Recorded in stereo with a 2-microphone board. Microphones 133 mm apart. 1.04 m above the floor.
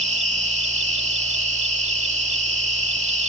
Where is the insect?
60° right (ahead or behind).